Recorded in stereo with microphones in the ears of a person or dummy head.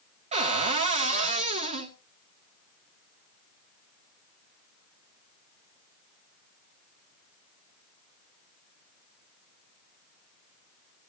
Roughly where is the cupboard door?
Right.